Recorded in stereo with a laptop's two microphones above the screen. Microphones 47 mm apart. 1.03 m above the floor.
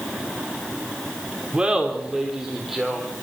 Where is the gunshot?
I don't hear a gunshot.